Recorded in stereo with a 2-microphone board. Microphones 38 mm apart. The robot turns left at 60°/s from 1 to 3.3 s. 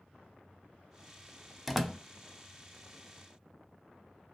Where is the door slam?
Centre (ahead or behind), 0.6 m; by 2.0 s 5° left (ahead or behind), 0.6 m.